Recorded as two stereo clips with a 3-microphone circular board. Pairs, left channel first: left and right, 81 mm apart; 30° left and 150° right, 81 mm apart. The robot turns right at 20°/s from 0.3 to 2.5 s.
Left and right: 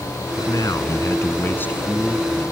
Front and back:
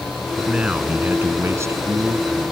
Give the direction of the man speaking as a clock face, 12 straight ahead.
8 o'clock.